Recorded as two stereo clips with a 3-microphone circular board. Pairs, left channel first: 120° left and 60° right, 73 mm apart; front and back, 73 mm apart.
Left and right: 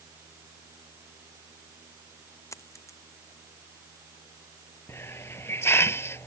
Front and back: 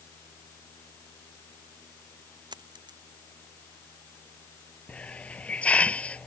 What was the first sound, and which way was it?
A dropped coin, 165° left.